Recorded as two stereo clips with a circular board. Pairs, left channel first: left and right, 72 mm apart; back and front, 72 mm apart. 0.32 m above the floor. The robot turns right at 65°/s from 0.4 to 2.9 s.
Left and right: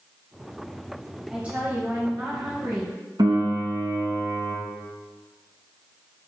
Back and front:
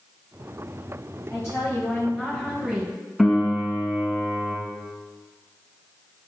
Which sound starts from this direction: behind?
A woman speaking, at 1.3 s.